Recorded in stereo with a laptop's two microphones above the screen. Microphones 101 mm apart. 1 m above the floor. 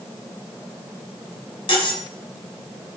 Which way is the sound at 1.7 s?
60° left (ahead or behind).